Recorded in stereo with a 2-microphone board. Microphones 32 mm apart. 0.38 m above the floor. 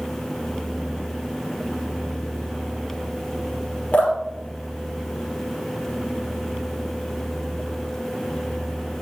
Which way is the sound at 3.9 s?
45° left (ahead or behind).